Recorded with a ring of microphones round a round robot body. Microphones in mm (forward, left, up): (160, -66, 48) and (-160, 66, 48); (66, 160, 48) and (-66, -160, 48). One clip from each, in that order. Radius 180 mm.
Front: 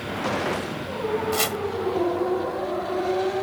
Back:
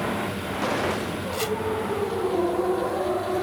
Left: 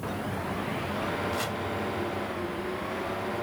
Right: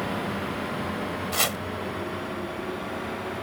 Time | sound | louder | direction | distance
1.3 | chopping | front 2 dB, right 5 dB | 80° right | ?